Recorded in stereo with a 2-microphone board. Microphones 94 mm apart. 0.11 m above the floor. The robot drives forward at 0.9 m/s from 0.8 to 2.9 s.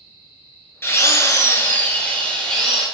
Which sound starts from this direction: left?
A drill, at 0.8 s.